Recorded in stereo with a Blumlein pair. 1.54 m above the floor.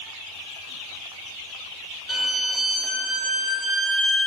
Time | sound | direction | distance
2.1 | a violin | 10° right | 0.7 m